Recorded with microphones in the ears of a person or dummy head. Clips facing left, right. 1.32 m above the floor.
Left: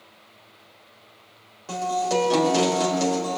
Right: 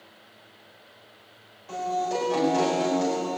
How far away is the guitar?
About 4.5 m.